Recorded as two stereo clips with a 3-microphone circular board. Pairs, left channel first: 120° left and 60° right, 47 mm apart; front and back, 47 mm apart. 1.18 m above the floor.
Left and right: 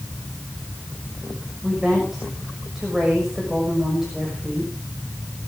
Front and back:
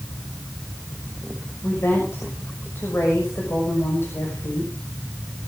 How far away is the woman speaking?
About 6.5 m.